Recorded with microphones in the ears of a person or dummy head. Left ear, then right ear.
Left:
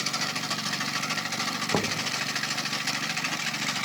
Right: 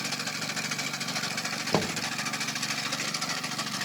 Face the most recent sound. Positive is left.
turn(degrees=-20)  # may be behind; listen again after turning